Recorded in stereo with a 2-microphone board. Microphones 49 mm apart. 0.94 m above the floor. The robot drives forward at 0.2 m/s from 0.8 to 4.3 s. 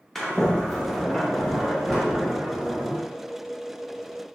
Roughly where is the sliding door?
Centre.